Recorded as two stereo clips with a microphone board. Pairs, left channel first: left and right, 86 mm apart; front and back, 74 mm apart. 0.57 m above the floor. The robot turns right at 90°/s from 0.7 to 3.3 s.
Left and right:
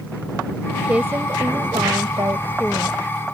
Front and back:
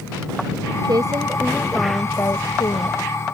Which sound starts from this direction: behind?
A woman speaking, at 0.8 s.